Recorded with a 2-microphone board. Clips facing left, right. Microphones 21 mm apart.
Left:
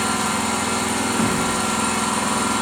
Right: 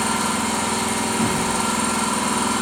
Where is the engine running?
30° left (ahead or behind), 1.2 m.